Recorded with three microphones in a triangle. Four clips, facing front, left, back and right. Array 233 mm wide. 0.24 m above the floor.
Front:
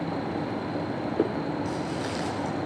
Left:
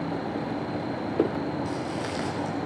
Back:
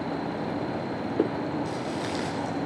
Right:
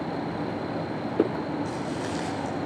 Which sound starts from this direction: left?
Footsteps, at 1.6 s.